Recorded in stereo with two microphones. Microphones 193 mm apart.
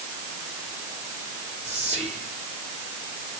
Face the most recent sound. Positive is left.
turn(degrees=-35)  # may be behind; listen again after turning